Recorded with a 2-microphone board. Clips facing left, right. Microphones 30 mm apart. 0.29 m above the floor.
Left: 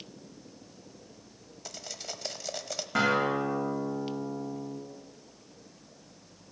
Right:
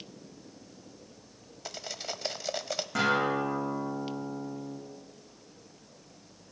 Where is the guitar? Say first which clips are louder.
Left 1 dB; 20° left (ahead or behind), 6.5 m.